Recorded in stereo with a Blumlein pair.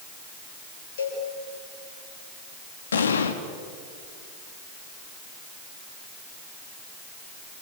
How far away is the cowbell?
About 7.5 m.